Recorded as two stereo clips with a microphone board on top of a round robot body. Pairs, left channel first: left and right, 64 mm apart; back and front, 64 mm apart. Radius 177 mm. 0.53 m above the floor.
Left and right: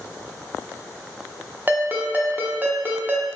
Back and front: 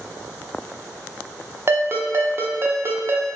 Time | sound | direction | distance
1.7 | a ringtone | 40° right | 0.8 m